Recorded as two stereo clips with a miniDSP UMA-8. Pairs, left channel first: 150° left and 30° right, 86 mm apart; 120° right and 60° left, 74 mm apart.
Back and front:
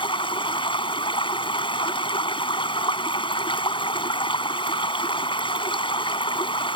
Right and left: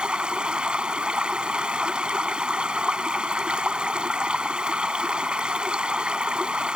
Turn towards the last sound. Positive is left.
turn(degrees=135)